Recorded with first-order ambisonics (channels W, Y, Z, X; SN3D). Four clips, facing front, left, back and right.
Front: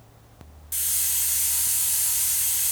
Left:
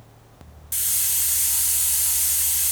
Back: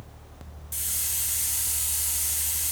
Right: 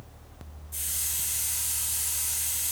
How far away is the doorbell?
No doorbell in this recording.